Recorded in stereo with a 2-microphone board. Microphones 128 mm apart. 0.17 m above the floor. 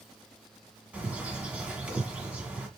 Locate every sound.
0.9 s a bird: 10° right (ahead or behind), 1.7 m